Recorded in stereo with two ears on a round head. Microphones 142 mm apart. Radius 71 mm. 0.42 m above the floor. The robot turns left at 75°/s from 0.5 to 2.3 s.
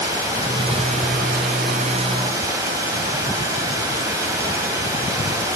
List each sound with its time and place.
0.0 s running water: 25° right, 2.5 m; by 5.5 s 160° right, 2.5 m